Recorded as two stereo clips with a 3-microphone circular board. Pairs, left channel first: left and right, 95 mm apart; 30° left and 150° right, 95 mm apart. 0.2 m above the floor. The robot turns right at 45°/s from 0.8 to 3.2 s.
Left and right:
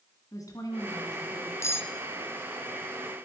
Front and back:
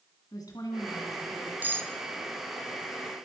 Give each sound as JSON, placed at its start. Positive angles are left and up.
{"t": 0.3, "sound": "a woman speaking", "azimuth_deg": 55, "distance_m": 2.0}
{"t": 1.6, "sound": "cutlery clinking", "azimuth_deg": 145, "distance_m": 1.0}